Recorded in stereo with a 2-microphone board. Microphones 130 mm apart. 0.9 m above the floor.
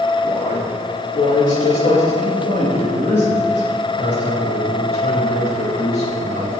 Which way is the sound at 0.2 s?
65° left (ahead or behind).